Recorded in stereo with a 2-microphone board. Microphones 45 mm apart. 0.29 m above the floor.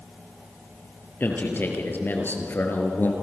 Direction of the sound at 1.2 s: 45° left (ahead or behind).